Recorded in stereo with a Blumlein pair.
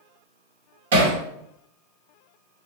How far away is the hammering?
About 1.4 m.